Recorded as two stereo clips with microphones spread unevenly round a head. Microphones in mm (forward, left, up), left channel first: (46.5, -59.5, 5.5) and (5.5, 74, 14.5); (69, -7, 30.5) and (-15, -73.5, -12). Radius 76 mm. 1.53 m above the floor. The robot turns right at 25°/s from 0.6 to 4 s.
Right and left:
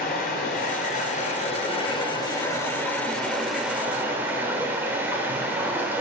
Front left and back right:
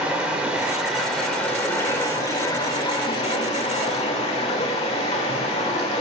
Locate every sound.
0.0 s running water: 50° right, 3 m; by 6.0 s 35° left, 3 m